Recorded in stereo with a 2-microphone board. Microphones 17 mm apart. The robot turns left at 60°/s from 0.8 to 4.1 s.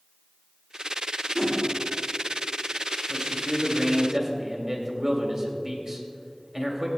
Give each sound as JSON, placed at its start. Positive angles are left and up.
{"t": 1.4, "sound": "a whoosh", "side_deg": -45, "distance_m": 3.0}
{"t": 3.1, "sound": "a man speaking", "azimuth_deg": -90, "distance_m": 2.0}